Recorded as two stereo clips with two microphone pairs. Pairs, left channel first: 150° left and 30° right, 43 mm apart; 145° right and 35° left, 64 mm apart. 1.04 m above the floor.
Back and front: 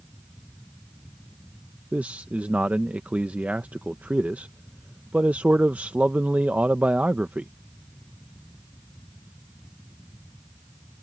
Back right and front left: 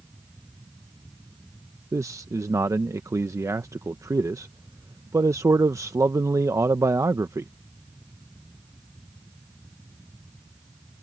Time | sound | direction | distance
1.9 | a man speaking | 15° left | ?